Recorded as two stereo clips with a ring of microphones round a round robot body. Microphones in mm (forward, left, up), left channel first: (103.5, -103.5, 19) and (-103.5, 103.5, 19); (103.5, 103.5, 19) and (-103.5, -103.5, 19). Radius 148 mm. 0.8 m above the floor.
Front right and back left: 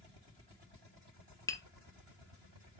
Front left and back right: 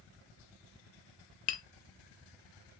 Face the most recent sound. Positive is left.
turn(degrees=35)